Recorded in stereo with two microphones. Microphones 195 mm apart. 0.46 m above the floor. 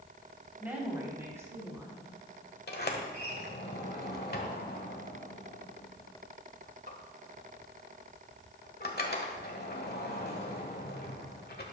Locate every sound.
0.6 s a woman speaking: 10° right (ahead or behind), 3 m; by 2.1 s 15° right (ahead or behind), 5 m
2.7 s a sliding door: 55° left (ahead or behind), 1.3 m